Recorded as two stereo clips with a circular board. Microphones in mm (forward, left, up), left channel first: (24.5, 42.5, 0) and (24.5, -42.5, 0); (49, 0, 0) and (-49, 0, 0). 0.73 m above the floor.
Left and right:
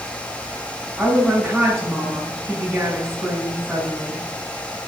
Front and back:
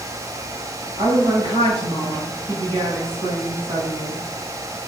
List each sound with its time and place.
1.0 s a woman speaking: 175° right, 4.5 m